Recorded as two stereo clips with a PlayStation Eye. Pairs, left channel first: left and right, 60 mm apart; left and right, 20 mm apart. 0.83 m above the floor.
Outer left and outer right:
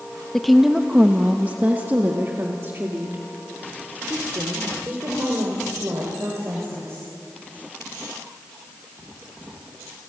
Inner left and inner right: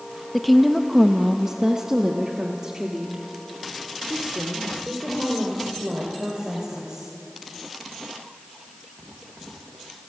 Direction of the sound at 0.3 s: 5° left (ahead or behind).